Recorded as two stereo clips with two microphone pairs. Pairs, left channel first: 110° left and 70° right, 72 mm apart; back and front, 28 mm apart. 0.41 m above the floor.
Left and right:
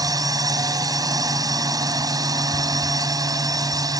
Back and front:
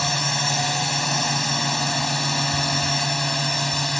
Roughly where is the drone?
Right.